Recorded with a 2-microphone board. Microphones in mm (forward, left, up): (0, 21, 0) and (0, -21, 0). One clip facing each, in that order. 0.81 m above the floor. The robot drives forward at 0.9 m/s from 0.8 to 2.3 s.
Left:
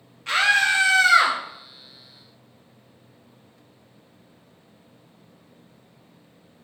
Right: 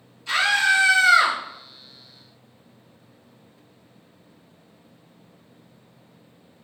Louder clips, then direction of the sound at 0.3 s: Even; 55° left (ahead or behind).